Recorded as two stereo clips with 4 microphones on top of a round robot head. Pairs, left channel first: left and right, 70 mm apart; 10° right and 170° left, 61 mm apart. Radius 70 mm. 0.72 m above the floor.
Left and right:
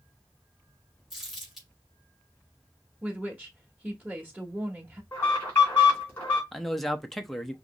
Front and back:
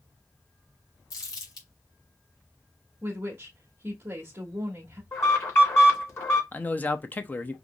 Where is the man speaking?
5° left, 0.7 m.